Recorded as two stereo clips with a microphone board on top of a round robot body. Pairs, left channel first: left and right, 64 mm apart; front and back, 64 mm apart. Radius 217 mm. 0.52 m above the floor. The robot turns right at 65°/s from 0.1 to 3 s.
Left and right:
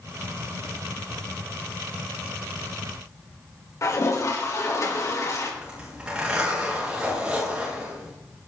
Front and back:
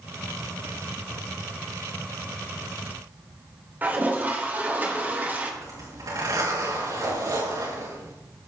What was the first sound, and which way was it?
A toilet flushing, 120° left.